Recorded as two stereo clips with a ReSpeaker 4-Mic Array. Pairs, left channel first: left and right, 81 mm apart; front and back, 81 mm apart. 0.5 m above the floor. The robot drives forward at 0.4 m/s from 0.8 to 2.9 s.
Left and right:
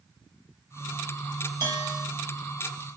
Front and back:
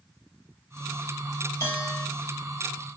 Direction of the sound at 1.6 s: 50° right.